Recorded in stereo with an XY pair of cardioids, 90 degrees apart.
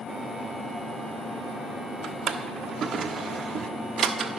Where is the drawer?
65° right, 1.1 m.